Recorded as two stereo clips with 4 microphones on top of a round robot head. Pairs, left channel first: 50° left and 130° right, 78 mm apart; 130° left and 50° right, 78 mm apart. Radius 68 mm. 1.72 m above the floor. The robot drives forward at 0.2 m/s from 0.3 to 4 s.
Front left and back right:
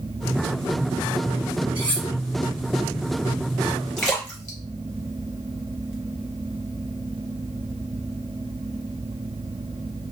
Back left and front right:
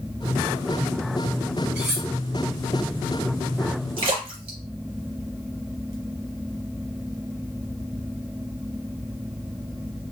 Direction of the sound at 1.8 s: 115° right.